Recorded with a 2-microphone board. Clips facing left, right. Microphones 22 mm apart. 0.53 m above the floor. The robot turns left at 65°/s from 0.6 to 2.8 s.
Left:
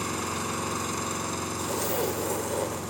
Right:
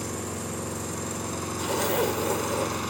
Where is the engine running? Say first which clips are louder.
Left 3 dB; 70° left, 3 m; by 2.9 s 70° right, 3 m.